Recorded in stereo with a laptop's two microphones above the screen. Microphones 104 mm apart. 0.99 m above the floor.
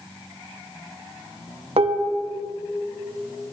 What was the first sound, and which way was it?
Dishes clattering, 75° right (ahead or behind).